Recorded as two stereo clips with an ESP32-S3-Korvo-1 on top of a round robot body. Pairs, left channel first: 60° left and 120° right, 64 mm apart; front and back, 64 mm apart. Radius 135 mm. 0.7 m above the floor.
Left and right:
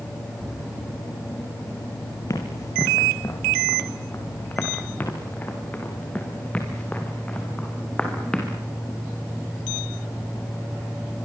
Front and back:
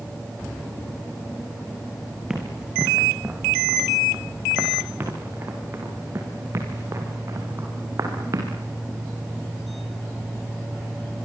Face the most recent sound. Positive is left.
turn(degrees=135)